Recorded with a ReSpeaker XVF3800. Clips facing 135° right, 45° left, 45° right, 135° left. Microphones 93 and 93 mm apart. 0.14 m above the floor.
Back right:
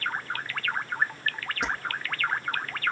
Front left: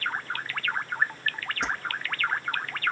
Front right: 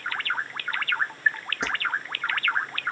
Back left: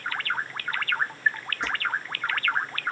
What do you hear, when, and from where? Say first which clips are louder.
1.6 s keys jangling: even, front right 1 dB; 50° right, 3 m